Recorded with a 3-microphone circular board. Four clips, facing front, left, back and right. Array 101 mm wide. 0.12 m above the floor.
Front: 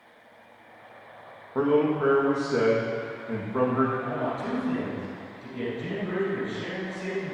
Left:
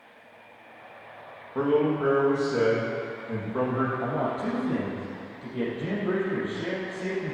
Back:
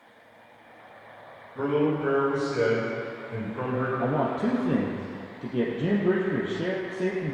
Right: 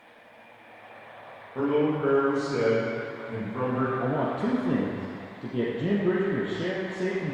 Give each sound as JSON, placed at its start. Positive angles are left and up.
{"t": 1.6, "sound": "a man speaking", "azimuth_deg": 15, "distance_m": 6.5}
{"t": 4.0, "sound": "a man speaking", "azimuth_deg": -150, "distance_m": 3.0}